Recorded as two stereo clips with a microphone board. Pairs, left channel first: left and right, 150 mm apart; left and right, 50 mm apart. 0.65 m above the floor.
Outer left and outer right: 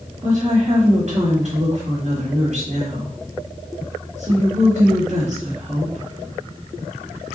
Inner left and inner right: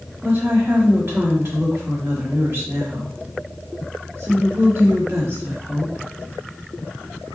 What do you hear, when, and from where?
0.2 s a woman speaking: 50° right (ahead or behind), 1.6 m